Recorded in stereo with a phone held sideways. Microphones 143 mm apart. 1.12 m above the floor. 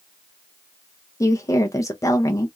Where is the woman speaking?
25° left (ahead or behind), 0.6 m.